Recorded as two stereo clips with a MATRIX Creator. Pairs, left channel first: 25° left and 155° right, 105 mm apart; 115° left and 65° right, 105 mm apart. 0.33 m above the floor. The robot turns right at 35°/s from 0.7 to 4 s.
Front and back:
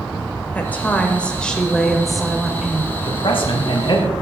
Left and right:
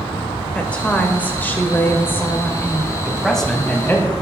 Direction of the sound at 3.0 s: 15° left.